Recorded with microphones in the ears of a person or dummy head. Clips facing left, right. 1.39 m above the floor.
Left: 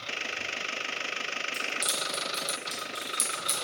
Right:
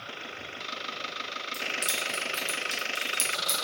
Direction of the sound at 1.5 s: 5° right (ahead or behind).